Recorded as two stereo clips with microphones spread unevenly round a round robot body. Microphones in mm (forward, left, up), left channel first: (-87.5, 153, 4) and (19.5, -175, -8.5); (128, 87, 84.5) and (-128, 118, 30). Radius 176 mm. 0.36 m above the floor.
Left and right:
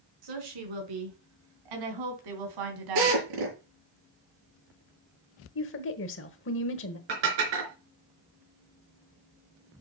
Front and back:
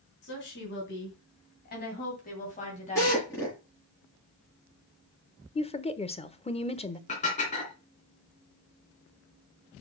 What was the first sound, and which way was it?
A woman speaking, 65° right.